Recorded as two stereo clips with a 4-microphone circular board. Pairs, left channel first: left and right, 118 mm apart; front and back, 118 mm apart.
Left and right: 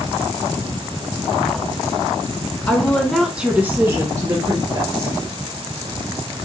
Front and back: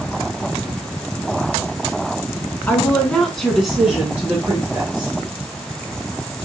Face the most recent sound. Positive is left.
turn(degrees=-115)